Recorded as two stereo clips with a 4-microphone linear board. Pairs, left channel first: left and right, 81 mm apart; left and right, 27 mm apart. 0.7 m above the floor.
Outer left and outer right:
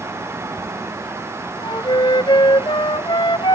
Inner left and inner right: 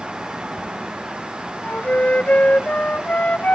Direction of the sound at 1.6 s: 75° left (ahead or behind).